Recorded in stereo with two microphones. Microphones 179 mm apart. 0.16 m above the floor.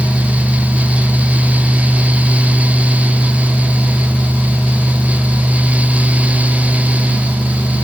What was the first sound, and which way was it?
Only background noise.